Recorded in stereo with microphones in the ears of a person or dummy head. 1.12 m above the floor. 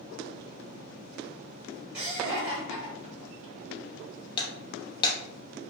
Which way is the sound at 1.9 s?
20° right (ahead or behind).